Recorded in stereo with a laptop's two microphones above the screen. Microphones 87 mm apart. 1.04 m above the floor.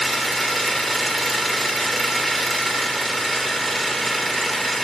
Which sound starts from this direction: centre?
An engine running, at 0.0 s.